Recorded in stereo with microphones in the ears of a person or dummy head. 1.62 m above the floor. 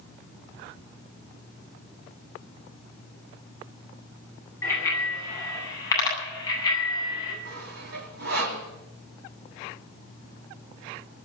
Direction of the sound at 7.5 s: 65° right (ahead or behind).